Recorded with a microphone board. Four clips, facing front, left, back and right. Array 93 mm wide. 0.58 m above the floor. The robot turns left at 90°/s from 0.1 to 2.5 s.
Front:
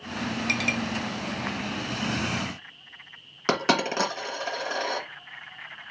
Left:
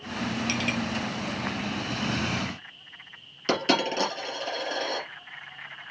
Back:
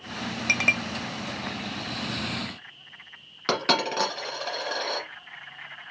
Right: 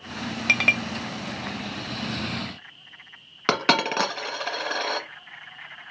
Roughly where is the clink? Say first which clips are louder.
Right 11 dB, back 5 dB; right.